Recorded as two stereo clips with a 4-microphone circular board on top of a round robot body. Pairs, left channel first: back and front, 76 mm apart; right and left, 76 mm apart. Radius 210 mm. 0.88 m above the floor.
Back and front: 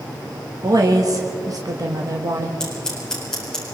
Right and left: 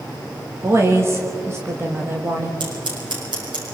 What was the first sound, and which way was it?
A woman speaking, 35° left.